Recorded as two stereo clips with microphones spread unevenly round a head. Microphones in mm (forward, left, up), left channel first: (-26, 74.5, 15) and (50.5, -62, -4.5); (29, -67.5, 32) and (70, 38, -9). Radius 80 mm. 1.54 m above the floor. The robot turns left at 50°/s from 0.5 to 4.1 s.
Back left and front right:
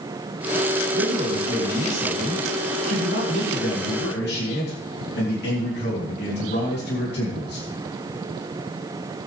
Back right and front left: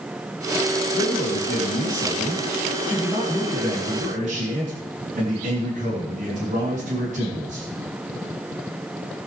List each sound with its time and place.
0.9 s a man speaking: 105° right, 3 m; by 7.7 s 100° left, 3 m